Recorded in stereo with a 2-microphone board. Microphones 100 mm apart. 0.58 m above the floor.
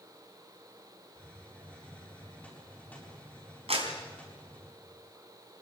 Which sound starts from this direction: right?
A clap, at 3.7 s.